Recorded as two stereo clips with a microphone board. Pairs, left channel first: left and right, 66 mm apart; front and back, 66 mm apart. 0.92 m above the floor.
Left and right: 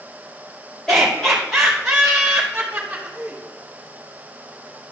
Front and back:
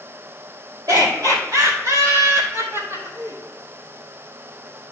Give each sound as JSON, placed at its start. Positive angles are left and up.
{"t": 0.9, "sound": "laughter", "azimuth_deg": 170, "distance_m": 3.0}